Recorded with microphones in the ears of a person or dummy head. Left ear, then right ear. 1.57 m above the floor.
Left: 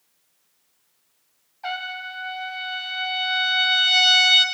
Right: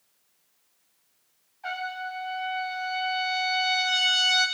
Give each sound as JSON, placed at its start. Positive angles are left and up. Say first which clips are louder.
{"t": 1.6, "sound": "a trumpet", "louder": "left 3 dB", "side_deg": 30, "distance_m": 1.4}